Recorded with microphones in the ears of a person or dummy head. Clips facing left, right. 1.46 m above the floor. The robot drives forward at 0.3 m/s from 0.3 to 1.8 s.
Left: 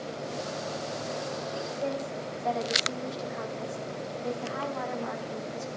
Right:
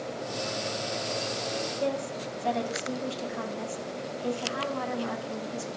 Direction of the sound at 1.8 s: 40° right (ahead or behind).